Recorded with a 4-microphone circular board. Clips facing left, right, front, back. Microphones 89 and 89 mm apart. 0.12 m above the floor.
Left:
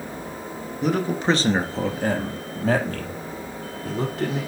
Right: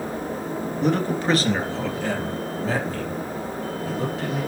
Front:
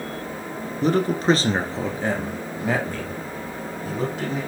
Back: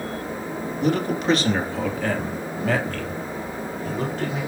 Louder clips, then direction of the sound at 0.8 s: Left 1 dB, front 3 dB; 5° left.